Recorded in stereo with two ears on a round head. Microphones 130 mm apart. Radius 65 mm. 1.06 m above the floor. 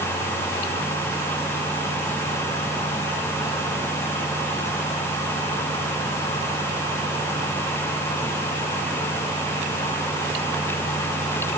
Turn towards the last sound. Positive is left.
No sound to turn to.